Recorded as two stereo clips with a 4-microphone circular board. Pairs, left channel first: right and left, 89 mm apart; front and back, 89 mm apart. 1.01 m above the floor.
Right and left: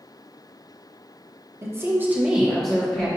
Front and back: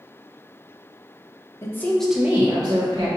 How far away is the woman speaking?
About 0.8 m.